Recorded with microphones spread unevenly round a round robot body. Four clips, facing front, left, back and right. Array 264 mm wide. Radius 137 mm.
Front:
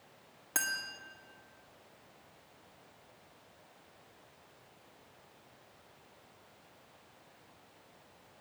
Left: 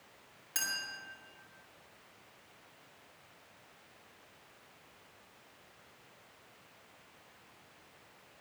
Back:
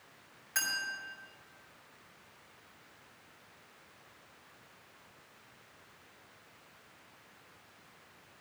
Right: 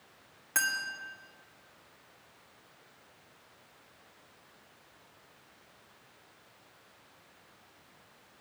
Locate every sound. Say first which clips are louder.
0.6 s a clink: right 10 dB, even; 20° right, 1.7 m